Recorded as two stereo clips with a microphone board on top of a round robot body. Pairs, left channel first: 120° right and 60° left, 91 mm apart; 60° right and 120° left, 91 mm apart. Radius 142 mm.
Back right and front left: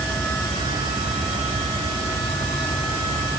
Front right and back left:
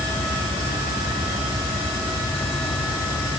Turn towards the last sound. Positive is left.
No sound to turn to.